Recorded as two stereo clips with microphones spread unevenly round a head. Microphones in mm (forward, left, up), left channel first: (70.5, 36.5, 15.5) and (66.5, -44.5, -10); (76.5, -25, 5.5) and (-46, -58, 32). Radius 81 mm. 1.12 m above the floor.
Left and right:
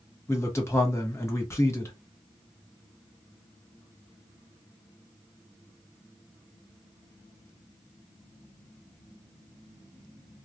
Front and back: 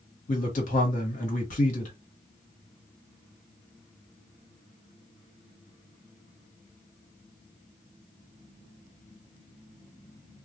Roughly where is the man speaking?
Ahead left.